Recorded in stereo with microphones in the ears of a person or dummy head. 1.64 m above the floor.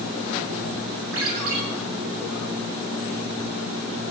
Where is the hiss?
I don't hear a hiss.